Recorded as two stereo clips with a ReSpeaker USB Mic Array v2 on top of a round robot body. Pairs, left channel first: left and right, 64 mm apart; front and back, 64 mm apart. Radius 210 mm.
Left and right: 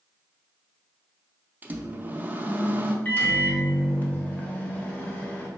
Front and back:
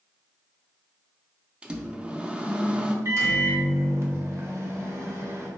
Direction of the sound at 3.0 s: 150° left.